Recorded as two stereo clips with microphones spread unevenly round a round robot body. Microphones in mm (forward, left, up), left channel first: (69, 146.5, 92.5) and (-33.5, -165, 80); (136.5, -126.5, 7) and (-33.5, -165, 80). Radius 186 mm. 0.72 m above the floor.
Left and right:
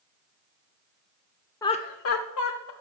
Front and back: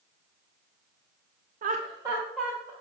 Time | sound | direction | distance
1.6 | laughter | 150° left | 0.5 m